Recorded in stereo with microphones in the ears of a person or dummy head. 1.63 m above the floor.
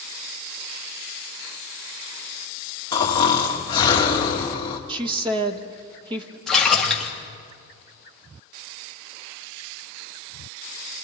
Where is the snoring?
30° left (ahead or behind), 1.9 m.